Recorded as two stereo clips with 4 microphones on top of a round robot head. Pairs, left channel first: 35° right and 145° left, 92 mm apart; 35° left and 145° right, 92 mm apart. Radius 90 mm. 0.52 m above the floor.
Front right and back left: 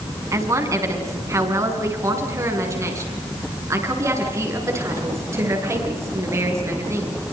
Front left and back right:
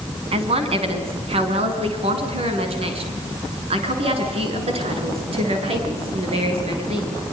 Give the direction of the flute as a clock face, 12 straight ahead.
I don't hear a flute.